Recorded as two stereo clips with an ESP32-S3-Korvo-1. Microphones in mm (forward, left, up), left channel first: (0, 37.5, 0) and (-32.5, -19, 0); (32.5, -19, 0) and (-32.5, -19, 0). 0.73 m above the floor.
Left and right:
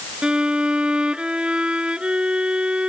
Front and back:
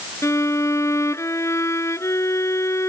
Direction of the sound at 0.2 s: 45° right.